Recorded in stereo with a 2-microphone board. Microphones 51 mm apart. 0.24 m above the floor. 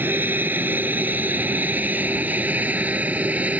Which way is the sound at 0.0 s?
40° right (ahead or behind).